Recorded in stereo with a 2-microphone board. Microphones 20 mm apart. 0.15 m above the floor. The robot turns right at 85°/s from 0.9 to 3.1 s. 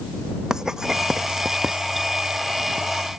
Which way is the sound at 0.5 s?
35° right (ahead or behind).